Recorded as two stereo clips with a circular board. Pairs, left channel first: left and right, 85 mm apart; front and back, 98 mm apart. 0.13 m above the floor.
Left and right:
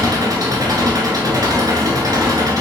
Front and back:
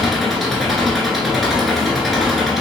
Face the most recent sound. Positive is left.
turn(degrees=-90)